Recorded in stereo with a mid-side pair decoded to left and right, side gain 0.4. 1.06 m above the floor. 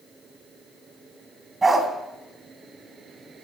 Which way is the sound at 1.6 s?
30° right.